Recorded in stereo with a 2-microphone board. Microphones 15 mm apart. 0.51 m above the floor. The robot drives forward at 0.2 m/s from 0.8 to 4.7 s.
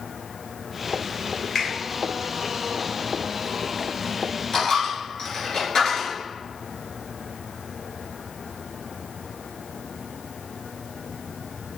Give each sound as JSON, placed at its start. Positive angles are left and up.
{"t": 1.6, "sound": "a finger snap", "side_deg": 30, "distance_m": 1.7}
{"t": 4.5, "sound": "a dropped coin", "side_deg": 40, "distance_m": 1.4}